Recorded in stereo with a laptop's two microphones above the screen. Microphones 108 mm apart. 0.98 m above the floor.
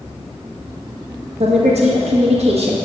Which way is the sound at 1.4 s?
65° right (ahead or behind).